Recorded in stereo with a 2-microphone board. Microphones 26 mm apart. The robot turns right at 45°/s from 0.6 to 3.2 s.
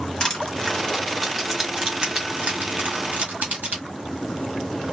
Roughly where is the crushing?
Left.